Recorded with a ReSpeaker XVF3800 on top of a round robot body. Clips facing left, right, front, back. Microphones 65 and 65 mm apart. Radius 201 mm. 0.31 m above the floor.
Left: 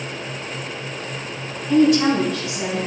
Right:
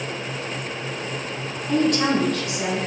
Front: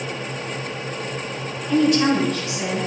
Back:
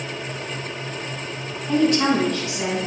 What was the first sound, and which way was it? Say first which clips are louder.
A woman speaking: left 5 dB, front 1 dB; 130° right.